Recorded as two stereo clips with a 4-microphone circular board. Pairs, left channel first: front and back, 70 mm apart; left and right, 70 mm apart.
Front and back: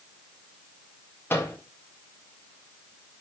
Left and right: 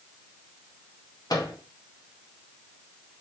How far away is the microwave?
About 2 m.